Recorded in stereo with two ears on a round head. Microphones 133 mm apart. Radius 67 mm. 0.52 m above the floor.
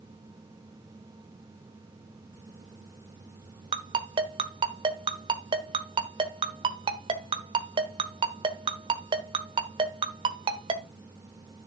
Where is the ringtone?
35° right (ahead or behind), 1.3 m.